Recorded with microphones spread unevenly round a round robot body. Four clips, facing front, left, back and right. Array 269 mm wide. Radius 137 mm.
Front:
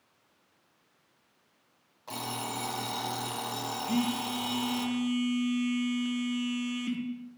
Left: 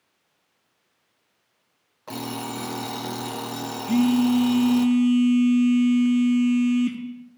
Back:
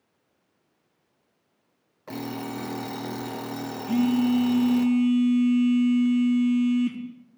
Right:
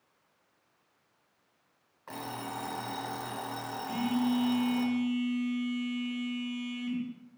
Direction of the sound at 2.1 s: 140° left.